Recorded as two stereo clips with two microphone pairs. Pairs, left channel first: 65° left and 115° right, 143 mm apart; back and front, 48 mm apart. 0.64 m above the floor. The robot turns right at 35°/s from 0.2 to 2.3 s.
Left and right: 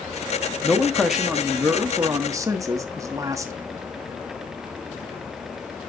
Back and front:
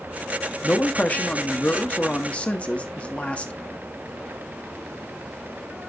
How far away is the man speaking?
About 1.0 m.